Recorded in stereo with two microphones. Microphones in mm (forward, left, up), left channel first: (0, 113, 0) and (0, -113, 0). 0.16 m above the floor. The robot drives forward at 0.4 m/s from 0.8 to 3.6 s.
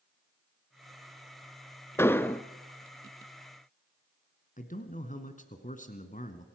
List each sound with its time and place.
2.0 s an explosion: 10° left (ahead or behind), 0.5 m
4.6 s a man speaking: 35° left (ahead or behind), 1.6 m